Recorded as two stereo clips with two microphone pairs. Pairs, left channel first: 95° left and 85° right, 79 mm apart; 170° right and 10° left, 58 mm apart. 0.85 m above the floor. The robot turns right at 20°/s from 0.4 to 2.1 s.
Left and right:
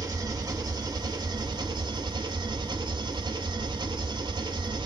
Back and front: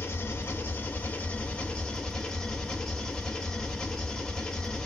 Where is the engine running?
125° right, 1.3 m; by 4.9 s 90° right, 1.3 m.